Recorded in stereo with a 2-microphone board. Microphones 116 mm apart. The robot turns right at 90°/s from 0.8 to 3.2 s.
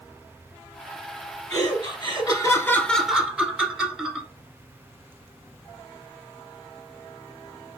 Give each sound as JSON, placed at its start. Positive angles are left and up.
{"t": 1.5, "sound": "laughter", "side_deg": 10, "distance_m": 1.3}